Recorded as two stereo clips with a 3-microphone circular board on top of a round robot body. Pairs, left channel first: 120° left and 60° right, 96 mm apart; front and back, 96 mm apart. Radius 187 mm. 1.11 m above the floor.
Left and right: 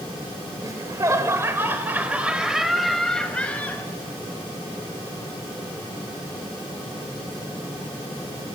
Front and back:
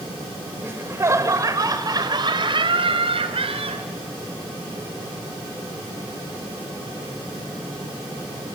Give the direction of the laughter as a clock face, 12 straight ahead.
4 o'clock.